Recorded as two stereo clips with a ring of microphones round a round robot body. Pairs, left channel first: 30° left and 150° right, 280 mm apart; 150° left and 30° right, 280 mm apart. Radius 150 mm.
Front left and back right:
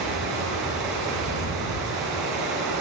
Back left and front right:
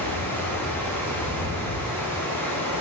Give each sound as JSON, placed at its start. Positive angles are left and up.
{"t": 0.0, "sound": "running water", "azimuth_deg": -125, "distance_m": 2.5}